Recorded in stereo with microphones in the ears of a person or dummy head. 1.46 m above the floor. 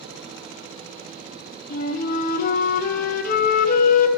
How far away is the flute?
About 0.8 m.